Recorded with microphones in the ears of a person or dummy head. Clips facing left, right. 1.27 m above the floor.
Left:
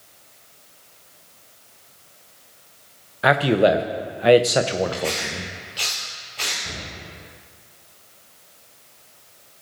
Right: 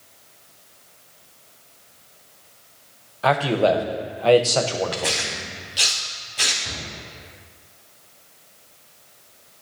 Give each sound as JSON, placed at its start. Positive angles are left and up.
{"t": 3.2, "sound": "a man speaking", "side_deg": 20, "distance_m": 0.7}
{"t": 4.9, "sound": "tearing paper", "side_deg": -15, "distance_m": 1.1}
{"t": 6.6, "sound": "a cupboard door", "side_deg": 5, "distance_m": 5.0}